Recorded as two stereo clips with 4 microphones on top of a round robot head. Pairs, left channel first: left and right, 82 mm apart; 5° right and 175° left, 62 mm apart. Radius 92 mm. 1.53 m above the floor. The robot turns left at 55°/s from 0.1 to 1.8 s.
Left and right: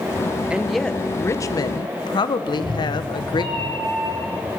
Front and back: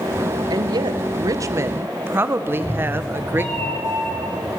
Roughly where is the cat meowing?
Ahead right.